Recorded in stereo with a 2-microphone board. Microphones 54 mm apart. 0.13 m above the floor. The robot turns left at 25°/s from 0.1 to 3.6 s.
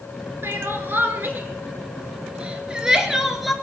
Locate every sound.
0.4 s crying: 45° right (ahead or behind), 1.6 m; by 3.5 s centre (ahead or behind), 1.6 m